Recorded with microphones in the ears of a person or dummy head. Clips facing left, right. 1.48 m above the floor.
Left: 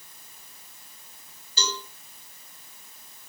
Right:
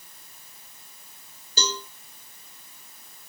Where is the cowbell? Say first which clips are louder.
Right 2 dB; 30° right (ahead or behind), 3 m.